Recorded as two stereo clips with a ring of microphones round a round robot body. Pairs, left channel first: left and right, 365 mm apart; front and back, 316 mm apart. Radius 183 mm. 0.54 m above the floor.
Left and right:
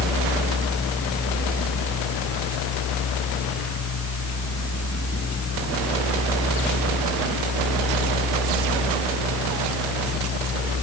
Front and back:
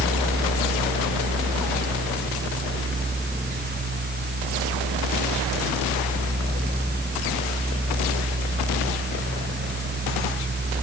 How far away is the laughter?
I don't hear laughter.